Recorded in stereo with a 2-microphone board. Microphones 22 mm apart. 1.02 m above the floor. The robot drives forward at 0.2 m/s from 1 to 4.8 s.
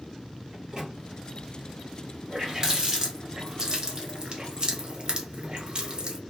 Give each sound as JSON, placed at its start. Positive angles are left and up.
{"t": 0.5, "sound": "a microwave", "side_deg": -35, "distance_m": 1.1}
{"t": 2.3, "sound": "a running tap", "side_deg": -25, "distance_m": 1.1}